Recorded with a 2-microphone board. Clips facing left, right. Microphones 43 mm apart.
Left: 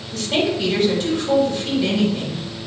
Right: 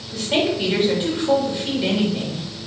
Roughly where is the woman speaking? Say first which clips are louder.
Even; centre.